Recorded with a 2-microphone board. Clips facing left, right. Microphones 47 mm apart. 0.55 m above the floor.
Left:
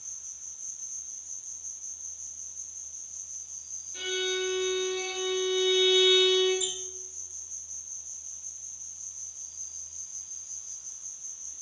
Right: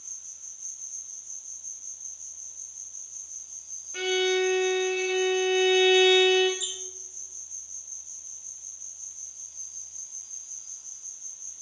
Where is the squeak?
70° left (ahead or behind), 1.6 m.